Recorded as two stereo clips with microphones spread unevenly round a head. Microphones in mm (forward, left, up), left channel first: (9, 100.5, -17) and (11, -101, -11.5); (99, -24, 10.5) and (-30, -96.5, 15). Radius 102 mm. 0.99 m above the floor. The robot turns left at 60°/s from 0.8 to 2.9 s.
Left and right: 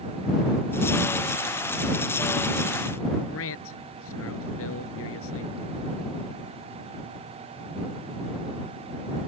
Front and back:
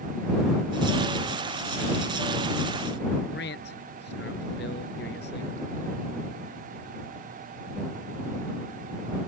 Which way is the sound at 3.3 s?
70° left.